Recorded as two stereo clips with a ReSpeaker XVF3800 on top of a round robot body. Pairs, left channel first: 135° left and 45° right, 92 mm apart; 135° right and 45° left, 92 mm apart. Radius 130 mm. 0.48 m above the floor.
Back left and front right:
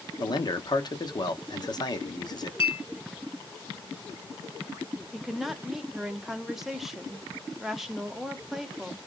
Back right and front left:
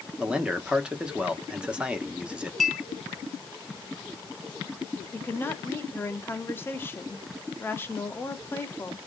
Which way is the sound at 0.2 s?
120° left.